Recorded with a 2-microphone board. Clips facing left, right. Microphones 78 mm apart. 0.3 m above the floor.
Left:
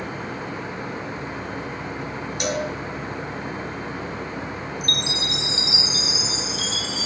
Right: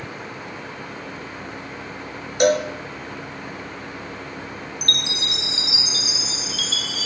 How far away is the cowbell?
About 6 m.